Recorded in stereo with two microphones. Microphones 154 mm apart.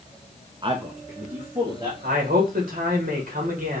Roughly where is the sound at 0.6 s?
Right.